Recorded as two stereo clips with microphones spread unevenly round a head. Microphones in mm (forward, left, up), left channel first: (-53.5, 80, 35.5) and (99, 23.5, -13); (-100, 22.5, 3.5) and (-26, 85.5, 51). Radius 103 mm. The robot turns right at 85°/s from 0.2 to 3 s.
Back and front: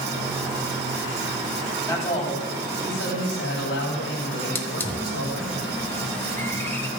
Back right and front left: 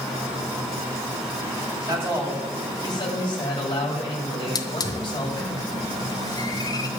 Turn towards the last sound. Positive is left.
turn(degrees=155)